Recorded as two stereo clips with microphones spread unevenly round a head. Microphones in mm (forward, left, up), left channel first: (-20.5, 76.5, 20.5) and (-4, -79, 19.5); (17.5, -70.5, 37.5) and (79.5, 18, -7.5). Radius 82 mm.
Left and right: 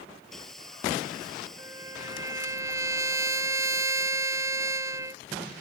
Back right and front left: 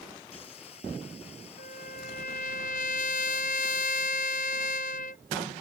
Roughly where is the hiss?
Behind.